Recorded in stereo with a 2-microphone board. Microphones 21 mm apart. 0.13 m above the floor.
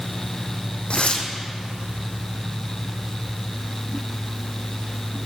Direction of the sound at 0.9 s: 65° left (ahead or behind).